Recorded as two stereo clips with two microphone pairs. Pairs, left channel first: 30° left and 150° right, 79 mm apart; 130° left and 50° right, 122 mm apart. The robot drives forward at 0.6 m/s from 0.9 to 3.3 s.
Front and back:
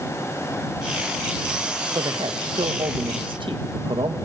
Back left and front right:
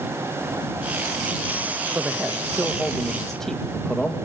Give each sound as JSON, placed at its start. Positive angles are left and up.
{"t": 1.9, "sound": "a man speaking", "azimuth_deg": -125, "distance_m": 1.3}